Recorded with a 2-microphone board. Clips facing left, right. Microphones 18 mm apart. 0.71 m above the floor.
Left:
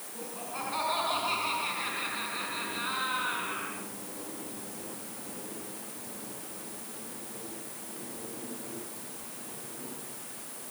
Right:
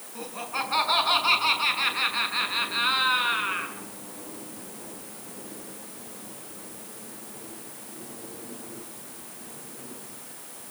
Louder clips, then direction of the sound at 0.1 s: Right 7 dB; 50° right (ahead or behind).